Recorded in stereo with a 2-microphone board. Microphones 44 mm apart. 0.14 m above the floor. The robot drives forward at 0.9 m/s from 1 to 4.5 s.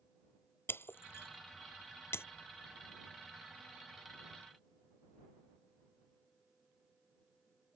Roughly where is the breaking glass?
Left.